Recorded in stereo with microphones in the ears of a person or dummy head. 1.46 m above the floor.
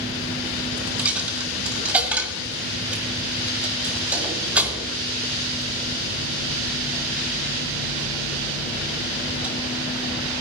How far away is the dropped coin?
About 1.9 m.